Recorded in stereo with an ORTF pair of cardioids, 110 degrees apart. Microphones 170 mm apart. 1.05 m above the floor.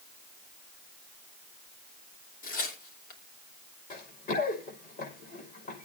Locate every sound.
2.4 s tearing paper: 60° left, 3 m
3.9 s running footsteps: 60° left, 6 m